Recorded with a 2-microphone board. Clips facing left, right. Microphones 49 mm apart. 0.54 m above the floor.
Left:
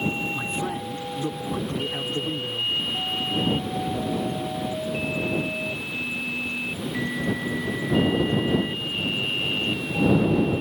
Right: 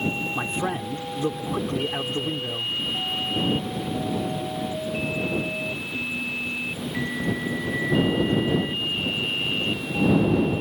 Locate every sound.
0.3 s a man speaking: 45° right (ahead or behind)